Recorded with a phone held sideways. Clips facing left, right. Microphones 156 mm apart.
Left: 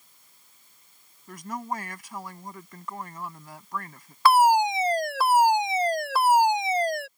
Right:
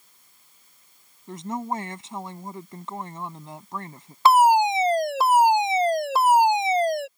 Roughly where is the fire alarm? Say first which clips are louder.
Right 2 dB; right.